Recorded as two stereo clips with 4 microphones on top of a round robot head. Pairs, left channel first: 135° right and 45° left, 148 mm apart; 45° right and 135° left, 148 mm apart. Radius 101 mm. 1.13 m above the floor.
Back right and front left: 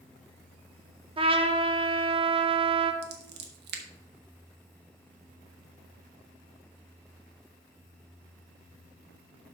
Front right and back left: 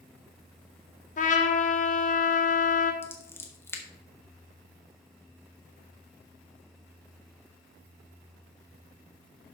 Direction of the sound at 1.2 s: 10° right.